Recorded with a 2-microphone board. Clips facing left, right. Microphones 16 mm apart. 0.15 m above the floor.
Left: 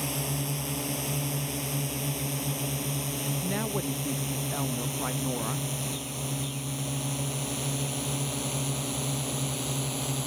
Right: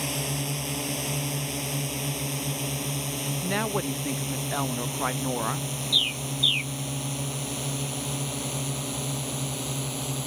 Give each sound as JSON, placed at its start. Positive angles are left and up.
{"t": 0.0, "sound": "a drone", "side_deg": -15}
{"t": 3.4, "sound": "a woman speaking", "side_deg": -30}
{"t": 5.9, "sound": "a bird", "side_deg": -85}